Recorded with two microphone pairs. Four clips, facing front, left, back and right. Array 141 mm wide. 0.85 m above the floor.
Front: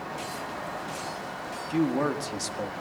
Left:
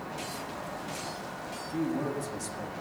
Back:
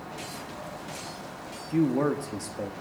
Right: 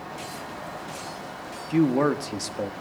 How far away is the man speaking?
About 1.7 m.